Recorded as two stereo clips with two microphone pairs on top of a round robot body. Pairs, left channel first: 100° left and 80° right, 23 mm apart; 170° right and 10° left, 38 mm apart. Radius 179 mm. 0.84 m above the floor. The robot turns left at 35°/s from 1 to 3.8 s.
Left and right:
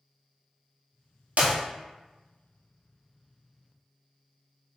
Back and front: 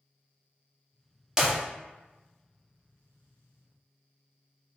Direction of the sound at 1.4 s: 65° right.